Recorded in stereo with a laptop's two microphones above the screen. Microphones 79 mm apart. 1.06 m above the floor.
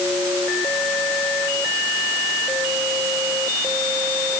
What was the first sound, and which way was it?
Only background noise.